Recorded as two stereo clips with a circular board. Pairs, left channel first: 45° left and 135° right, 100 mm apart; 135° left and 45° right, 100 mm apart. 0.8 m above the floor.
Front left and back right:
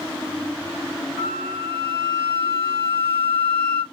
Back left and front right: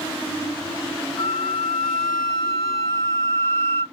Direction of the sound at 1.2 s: 165° right.